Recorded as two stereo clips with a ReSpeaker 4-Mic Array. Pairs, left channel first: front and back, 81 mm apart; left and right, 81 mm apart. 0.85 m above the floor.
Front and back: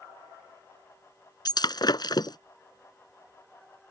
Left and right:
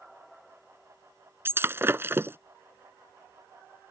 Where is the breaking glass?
30° right.